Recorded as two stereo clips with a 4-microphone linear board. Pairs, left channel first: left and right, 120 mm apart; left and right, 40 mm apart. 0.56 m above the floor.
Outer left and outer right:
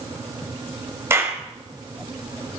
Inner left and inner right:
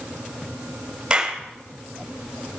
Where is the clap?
20° right (ahead or behind), 2.5 m.